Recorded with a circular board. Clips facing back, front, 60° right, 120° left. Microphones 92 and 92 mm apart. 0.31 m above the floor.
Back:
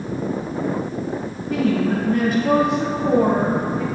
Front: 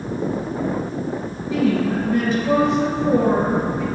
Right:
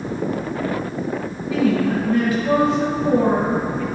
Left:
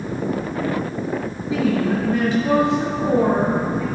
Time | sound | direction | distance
1.5 | a woman speaking | straight behind | 1.5 m